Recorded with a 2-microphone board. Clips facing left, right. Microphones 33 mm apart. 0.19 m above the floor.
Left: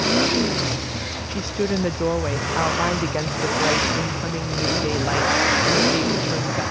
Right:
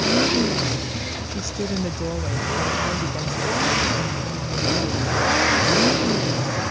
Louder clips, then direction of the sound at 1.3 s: Left 6 dB; 30° left (ahead or behind).